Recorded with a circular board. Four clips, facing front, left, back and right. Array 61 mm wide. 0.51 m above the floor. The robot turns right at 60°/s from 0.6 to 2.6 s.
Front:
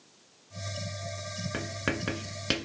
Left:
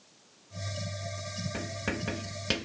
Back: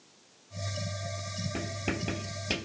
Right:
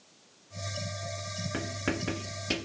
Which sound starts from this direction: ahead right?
Writing, at 1.5 s.